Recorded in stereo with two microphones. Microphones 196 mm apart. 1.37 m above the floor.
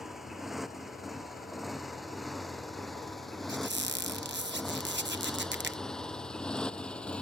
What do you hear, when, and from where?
0.0 s a motorcycle: centre (ahead or behind); by 7.2 s 5° left (ahead or behind)
3.5 s a squeak: 65° right (ahead or behind)